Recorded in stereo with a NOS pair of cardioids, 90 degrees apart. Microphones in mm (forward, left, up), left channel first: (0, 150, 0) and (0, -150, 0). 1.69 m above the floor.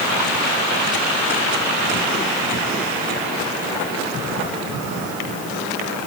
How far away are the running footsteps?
I don't hear running footsteps.